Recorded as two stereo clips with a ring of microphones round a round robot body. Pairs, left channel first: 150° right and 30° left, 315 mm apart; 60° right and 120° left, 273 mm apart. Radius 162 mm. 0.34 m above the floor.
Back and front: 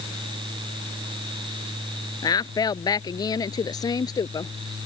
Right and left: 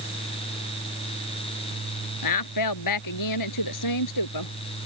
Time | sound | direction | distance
2.2 | a woman speaking | 70° right | ?